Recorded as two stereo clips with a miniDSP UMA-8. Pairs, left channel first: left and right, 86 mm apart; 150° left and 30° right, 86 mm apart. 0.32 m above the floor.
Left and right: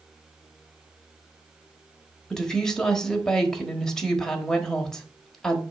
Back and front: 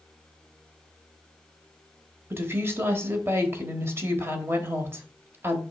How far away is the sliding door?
No sliding door in this recording.